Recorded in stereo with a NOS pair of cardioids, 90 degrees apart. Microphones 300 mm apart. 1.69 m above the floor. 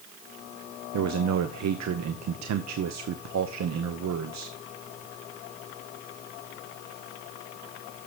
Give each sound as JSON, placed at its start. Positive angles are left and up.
{"t": 0.9, "sound": "a man speaking", "azimuth_deg": -65, "distance_m": 1.0}